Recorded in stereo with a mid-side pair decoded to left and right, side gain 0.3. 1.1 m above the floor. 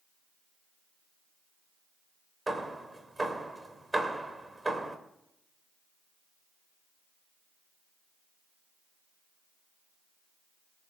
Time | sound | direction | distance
2.5 | hammering | 25° right | 2.5 m